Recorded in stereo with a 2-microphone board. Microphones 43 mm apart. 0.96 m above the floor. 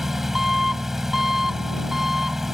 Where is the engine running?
10° right (ahead or behind).